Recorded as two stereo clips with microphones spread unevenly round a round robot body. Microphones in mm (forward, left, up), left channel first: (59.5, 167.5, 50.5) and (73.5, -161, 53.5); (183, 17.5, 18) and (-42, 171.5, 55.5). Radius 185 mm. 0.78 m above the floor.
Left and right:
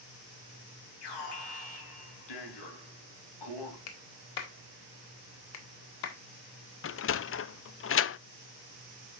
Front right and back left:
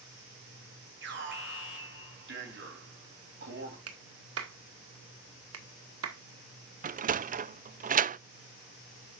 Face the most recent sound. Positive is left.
turn(degrees=90)